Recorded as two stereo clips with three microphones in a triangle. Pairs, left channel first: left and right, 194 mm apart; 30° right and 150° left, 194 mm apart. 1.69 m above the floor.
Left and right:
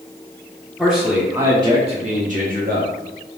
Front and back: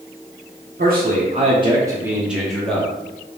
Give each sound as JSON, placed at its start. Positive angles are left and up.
{"t": 0.8, "sound": "a man speaking", "azimuth_deg": 180, "distance_m": 0.9}